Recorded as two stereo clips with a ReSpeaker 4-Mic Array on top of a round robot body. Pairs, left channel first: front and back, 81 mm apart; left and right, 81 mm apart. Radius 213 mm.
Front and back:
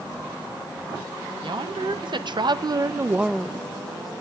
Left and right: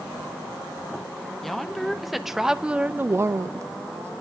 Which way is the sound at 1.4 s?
175° left.